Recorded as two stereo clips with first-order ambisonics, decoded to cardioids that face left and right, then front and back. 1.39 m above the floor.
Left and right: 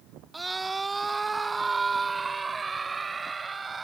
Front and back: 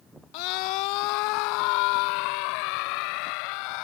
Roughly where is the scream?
Ahead.